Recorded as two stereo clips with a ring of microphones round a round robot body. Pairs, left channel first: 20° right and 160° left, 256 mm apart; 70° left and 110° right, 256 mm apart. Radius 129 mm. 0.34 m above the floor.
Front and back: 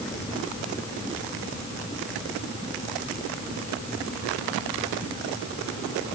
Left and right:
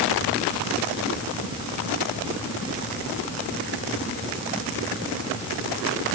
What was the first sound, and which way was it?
Only background noise.